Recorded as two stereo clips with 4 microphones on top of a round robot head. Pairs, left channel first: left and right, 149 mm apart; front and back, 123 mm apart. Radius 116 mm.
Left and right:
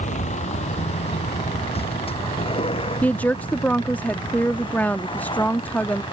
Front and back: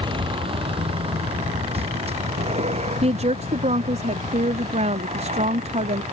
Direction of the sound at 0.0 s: 130° left.